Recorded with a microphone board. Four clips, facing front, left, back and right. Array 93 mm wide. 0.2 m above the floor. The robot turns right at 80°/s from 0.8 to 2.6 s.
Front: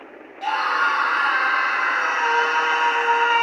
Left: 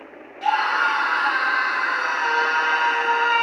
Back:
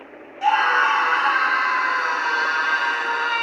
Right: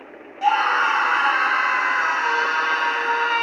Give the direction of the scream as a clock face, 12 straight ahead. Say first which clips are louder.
Right 2 dB, back 3 dB; 5 o'clock.